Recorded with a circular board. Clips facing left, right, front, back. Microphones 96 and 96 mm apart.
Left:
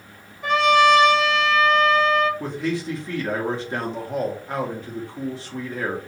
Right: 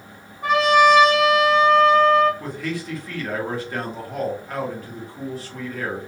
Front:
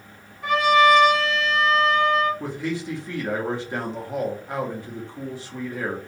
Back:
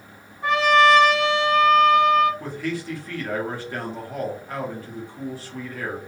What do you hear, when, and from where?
0.4 s a trumpet: 125° right, 1.8 m
2.4 s a man speaking: 50° left, 1.0 m